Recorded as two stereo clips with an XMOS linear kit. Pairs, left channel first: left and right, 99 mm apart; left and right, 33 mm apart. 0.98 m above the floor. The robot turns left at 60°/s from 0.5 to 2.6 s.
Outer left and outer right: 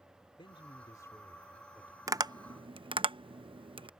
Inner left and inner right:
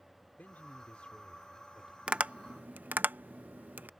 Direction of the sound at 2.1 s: 35° right (ahead or behind).